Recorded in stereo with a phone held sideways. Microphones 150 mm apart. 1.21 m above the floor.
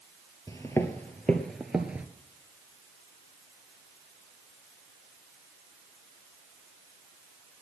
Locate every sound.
0.5 s footsteps: 20° left (ahead or behind), 1.4 m; by 2.1 s 10° right (ahead or behind), 1.2 m